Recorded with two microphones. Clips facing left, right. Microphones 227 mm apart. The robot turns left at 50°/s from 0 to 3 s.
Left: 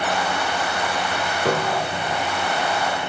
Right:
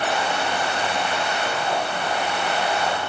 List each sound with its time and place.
1.4 s a piano: 115° left, 2 m; by 2.3 s 75° left, 2 m